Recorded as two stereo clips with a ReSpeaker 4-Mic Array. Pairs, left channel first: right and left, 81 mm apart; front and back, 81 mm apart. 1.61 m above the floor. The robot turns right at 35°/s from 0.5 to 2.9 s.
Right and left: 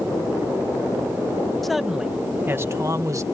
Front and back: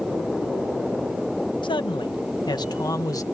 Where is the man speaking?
5° right; by 3.2 s 40° left.